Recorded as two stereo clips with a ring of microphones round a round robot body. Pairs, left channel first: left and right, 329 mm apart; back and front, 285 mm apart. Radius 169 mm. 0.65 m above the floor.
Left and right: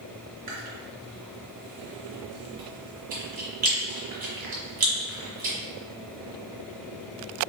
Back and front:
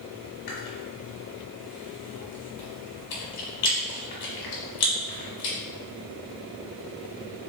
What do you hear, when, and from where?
0.5 s chewing: 155° right, 1.3 m